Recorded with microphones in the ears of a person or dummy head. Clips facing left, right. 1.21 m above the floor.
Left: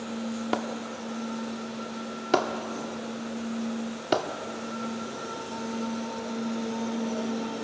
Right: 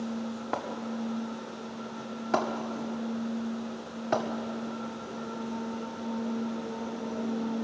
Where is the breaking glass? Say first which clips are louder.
Left 2 dB; 45° left (ahead or behind), 1.8 m.